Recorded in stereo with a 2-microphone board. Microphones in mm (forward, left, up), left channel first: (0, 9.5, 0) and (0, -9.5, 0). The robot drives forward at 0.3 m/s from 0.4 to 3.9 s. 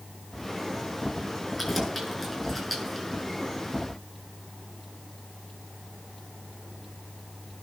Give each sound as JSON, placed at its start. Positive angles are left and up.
{"t": 1.6, "sound": "keys jangling", "side_deg": -5, "distance_m": 6.5}